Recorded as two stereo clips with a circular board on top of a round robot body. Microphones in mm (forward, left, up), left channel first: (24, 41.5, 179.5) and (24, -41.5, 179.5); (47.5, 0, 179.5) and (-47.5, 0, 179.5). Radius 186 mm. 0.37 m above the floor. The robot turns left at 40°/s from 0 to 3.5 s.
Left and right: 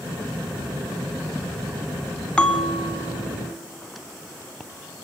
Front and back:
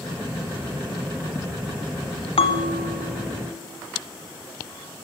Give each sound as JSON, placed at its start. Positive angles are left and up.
{"t": 2.4, "sound": "a bell", "azimuth_deg": 10, "distance_m": 1.6}